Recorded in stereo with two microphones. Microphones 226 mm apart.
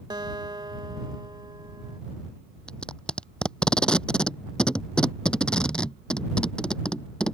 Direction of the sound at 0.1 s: 20° right (ahead or behind).